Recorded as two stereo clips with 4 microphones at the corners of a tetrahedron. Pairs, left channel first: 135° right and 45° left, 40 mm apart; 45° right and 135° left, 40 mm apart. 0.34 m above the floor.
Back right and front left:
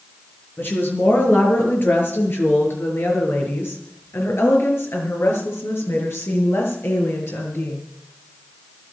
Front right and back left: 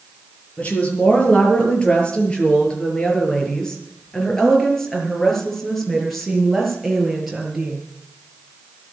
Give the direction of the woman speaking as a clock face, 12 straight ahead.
3 o'clock.